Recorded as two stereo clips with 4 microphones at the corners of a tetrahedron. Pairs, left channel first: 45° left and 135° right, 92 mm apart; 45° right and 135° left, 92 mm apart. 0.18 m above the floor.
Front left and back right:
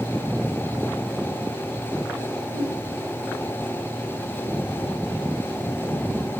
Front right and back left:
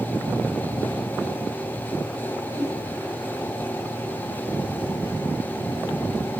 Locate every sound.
2.5 s a whoosh: 170° right, 5 m